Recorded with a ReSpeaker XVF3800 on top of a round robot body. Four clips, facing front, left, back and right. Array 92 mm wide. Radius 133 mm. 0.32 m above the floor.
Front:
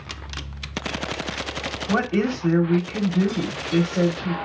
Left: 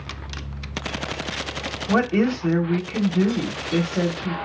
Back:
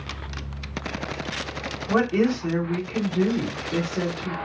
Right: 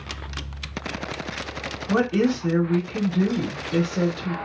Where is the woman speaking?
85° left, 1.8 m.